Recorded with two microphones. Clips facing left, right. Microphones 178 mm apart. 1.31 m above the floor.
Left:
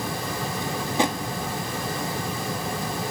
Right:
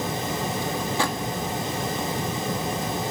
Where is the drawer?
20° left (ahead or behind), 1.5 m.